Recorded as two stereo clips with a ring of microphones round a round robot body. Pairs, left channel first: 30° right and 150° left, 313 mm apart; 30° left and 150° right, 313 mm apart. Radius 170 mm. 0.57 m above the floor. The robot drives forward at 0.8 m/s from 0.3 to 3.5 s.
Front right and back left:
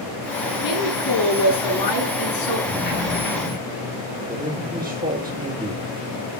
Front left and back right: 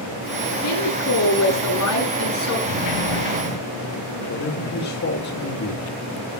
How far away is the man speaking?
About 2.5 m.